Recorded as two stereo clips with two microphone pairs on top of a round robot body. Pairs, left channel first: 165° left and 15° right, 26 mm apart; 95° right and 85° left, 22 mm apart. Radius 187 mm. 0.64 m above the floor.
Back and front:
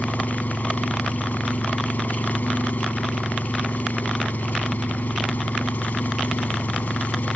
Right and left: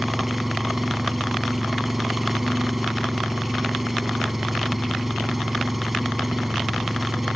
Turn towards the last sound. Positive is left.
turn(degrees=170)